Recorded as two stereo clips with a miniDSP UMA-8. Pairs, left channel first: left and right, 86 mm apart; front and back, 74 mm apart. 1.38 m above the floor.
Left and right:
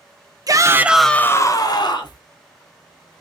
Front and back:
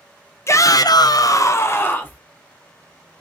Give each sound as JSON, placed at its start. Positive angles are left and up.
{"t": 0.5, "sound": "a shout", "azimuth_deg": -50, "distance_m": 0.8}